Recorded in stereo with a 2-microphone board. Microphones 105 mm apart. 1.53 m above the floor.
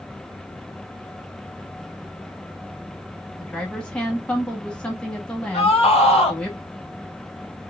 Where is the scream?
80° left, 1.8 m.